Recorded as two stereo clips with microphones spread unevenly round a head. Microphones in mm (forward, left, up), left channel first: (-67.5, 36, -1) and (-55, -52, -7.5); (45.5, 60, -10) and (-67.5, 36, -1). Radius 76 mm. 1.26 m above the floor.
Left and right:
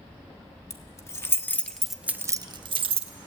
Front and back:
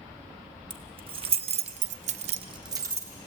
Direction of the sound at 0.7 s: 150° left.